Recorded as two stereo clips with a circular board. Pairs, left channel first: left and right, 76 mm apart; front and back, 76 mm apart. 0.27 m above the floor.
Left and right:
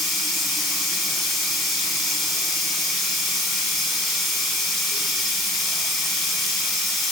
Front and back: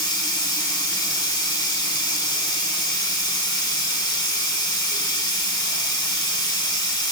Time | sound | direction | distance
0.0 | running water | straight ahead | 0.8 m